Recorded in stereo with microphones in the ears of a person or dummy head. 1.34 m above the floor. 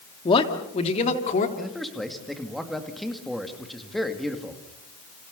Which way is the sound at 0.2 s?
25° left (ahead or behind).